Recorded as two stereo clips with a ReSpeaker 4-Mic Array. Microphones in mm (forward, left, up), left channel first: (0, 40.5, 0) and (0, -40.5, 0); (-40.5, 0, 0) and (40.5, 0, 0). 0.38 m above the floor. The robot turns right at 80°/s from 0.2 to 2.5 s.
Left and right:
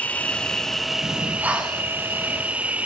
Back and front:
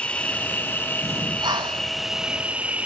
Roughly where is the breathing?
Ahead right.